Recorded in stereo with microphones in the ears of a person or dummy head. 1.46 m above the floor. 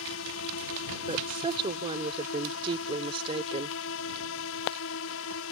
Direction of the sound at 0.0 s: 70° left (ahead or behind).